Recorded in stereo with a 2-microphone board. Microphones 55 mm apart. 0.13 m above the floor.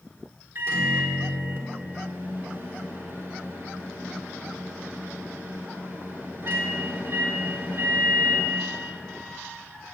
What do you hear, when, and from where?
0.6 s a microwave: 50° right (ahead or behind), 1.3 m